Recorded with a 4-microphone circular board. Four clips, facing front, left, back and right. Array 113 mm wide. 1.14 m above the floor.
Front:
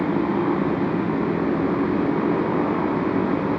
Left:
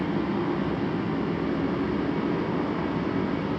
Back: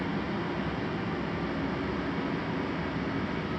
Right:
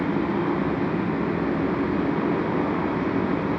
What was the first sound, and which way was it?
A motorcycle, 15° right.